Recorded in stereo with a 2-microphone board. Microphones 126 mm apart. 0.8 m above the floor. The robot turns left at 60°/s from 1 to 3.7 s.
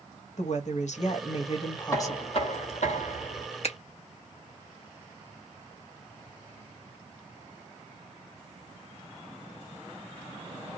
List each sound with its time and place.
0.4 s a woman speaking: 90° left, 0.9 m; by 2.4 s 5° left, 0.9 m
1.9 s knocking: 155° left, 1.4 m; by 3.5 s 60° left, 1.4 m
3.6 s a finger snap: 55° left (ahead or behind), 0.7 m